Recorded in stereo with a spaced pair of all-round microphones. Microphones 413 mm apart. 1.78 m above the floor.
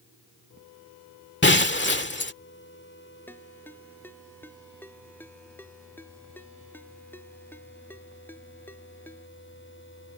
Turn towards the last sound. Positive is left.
turn(degrees=5)  # may be behind; listen again after turning